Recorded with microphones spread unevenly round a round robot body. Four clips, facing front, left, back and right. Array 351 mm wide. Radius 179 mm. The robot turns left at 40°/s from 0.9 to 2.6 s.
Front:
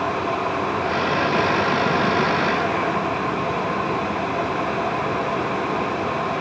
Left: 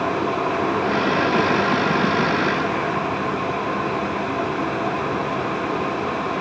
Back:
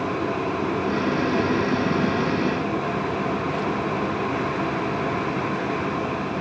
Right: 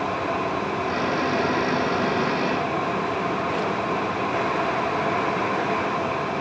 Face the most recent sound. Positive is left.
No sound to turn to.